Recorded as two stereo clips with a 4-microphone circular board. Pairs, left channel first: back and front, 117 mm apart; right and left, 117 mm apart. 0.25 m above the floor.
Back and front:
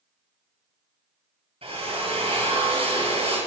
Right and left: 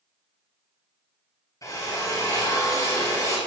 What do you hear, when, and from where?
1.6 s a drill: 30° right, 6 m